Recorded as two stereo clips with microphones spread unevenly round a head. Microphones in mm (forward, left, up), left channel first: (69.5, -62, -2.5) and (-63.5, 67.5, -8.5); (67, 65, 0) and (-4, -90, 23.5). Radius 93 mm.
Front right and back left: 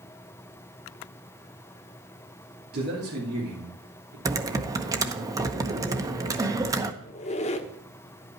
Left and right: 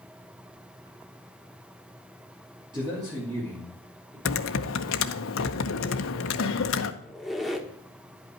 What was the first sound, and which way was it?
A man speaking, 175° left.